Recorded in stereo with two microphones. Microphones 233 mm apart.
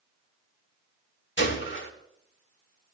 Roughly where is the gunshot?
Left.